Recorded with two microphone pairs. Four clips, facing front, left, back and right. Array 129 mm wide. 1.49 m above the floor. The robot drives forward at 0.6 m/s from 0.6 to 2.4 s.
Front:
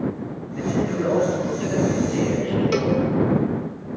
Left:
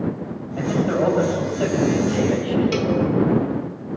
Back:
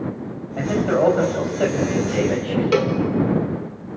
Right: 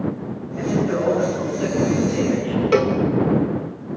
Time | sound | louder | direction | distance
0.6 | a man speaking | left 1 dB, back 5 dB | 165° left | 9.5 m
2.7 | a cowbell | right 4 dB, back 4 dB | 120° right | 2 m